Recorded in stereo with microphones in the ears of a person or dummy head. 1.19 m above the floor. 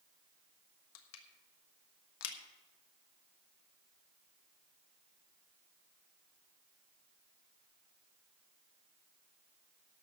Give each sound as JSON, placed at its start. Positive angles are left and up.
{"t": 0.9, "sound": "crushing", "side_deg": 75, "distance_m": 1.4}